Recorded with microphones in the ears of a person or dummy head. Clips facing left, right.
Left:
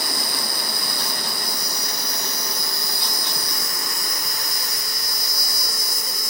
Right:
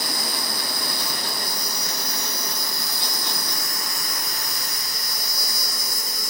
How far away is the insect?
About 4 m.